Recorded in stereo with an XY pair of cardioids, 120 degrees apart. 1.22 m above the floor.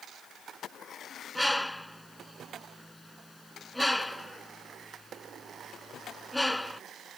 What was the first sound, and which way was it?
A bird, 5° left.